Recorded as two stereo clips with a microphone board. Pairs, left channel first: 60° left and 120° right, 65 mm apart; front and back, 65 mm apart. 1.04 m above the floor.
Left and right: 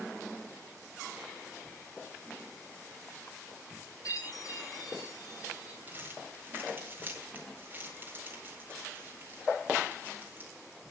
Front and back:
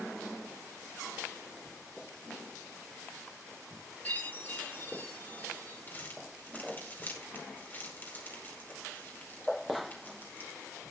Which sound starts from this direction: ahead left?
A chime, at 4.0 s.